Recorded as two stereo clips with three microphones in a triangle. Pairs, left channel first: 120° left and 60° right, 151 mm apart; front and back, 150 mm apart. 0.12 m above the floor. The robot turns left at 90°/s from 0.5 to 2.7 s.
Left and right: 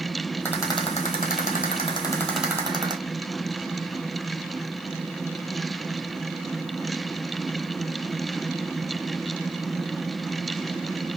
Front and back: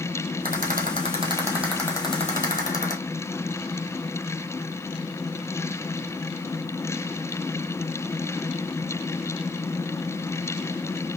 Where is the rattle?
160° right, 1.1 m; by 2.9 s straight ahead, 1.1 m.